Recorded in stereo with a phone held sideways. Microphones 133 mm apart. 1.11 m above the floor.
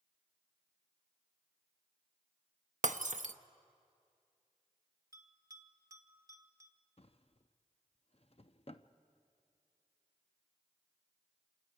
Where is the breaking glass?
75° right (ahead or behind), 0.7 m.